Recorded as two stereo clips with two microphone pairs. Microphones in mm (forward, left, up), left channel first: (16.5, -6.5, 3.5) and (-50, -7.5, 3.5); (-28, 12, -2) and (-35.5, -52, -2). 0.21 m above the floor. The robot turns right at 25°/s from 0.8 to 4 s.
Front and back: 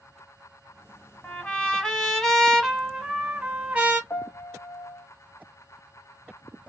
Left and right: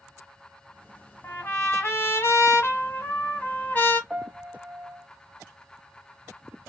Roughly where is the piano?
Ahead right.